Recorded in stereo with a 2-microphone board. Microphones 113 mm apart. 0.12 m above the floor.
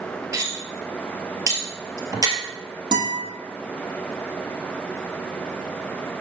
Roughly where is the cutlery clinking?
Right.